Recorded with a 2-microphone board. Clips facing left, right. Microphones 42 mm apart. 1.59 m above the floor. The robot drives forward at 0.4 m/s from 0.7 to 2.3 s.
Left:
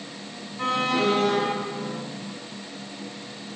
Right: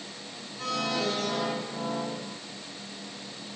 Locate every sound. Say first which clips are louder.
0.6 s an alarm: left 6 dB; 40° left (ahead or behind), 4.5 m; by 2.0 s 45° left (ahead or behind), 4.5 m